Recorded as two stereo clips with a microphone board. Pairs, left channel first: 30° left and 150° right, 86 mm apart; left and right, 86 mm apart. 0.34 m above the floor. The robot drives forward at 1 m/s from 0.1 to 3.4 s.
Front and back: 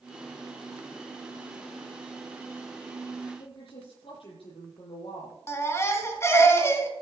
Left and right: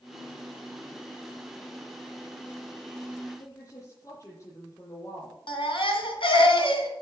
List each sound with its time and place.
3.4 s a woman speaking: 35° left, 7.5 m
5.5 s a baby crying: 90° left, 2 m